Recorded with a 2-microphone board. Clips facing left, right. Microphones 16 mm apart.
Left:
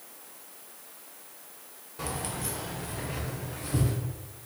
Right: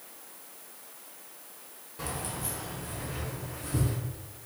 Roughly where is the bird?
I don't hear a bird.